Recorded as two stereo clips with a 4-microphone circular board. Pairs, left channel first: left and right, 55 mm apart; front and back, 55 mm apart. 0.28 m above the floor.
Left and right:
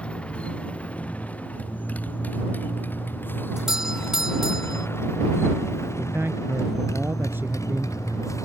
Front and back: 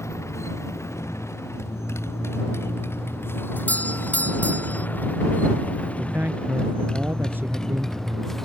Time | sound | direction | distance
0.0 | a motorcycle | 25° left | ?
3.6 | a doorbell | 15° right | ?
6.0 | a man speaking | 135° right | ?